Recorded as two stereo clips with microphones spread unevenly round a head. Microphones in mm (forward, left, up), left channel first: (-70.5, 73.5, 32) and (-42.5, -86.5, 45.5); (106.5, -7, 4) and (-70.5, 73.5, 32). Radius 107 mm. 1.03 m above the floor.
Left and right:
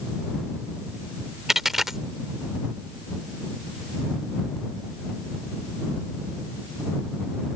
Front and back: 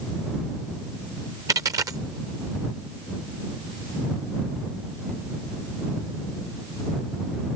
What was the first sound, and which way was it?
A dropped coin, 160° right.